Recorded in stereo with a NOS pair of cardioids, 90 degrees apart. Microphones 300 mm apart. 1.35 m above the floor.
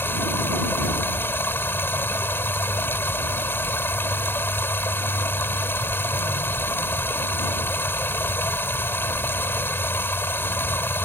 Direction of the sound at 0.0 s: 5° left.